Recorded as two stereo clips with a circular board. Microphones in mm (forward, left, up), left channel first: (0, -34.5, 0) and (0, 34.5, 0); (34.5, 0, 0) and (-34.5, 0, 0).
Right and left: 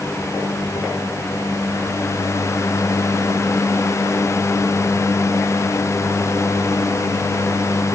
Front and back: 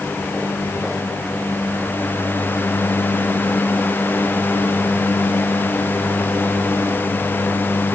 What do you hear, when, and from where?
Only background noise.